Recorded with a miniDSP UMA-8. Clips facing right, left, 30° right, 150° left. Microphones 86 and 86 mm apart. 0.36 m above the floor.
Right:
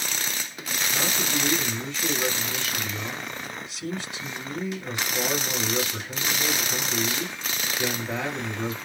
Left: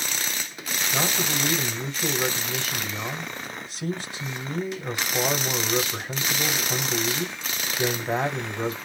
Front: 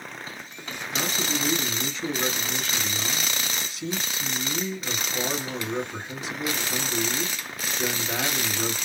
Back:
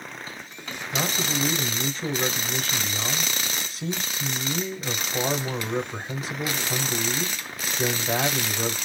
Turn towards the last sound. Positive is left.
turn(degrees=120)